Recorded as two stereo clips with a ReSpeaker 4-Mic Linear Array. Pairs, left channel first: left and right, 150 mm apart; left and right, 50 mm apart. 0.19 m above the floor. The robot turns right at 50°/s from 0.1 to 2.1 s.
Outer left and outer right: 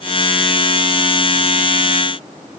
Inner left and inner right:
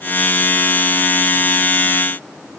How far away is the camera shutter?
No camera shutter in this recording.